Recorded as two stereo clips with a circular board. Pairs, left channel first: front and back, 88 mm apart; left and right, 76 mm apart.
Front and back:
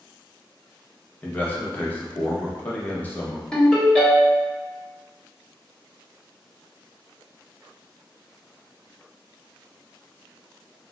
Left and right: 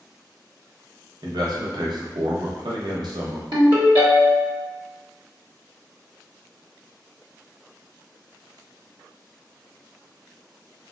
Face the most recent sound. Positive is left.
turn(degrees=-80)